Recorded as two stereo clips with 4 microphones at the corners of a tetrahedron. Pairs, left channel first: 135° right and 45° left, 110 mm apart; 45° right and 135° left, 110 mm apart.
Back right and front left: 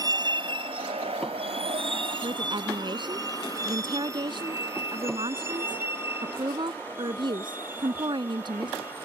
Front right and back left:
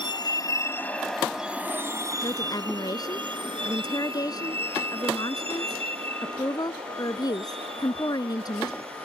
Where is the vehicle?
5° right; by 9.1 s 115° left.